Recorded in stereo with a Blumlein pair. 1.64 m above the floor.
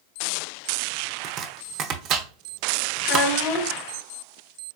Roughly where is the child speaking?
Ahead left.